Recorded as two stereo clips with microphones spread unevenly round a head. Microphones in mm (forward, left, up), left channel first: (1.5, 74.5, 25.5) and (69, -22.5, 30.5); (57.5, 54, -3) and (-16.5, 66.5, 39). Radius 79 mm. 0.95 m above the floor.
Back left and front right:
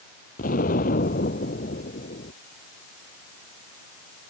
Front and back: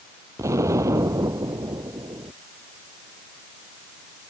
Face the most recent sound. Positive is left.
turn(degrees=125)